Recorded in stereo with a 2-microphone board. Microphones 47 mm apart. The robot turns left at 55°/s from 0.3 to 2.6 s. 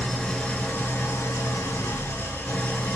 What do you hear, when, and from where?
0.0 s an engine running: 160° left, 0.8 m; by 3.0 s 35° left, 0.8 m